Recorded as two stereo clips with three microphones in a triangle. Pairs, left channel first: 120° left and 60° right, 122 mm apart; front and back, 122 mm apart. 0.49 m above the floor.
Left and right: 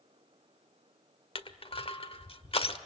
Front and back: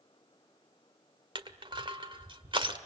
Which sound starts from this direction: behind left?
Crushing, at 1.4 s.